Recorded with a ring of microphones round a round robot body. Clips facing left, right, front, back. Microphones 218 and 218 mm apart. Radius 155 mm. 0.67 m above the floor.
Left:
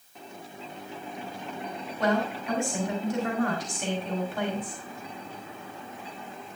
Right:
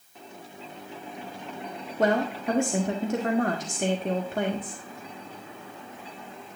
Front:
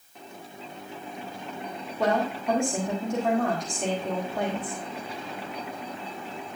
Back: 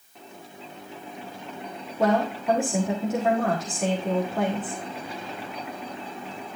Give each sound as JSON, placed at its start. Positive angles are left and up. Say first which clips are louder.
{"t": 2.0, "sound": "a woman speaking", "louder": "right 3 dB, back 3 dB", "azimuth_deg": -95, "distance_m": 1.3}